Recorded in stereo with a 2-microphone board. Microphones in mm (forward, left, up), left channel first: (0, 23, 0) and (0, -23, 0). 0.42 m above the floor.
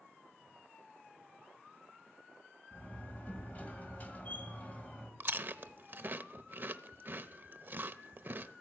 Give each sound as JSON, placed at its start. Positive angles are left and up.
{"t": 2.7, "sound": "a door slam", "side_deg": 35, "distance_m": 1.8}
{"t": 5.2, "sound": "chewing", "side_deg": -45, "distance_m": 0.6}